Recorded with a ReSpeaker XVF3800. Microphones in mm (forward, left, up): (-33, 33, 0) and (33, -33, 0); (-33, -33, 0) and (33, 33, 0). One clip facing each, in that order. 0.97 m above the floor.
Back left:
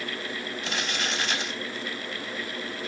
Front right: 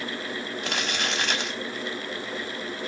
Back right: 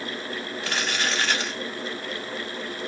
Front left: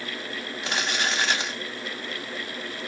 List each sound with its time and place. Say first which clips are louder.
0.6 s crumpling: front right 2 dB, front left 1 dB; 25° right, 1.0 m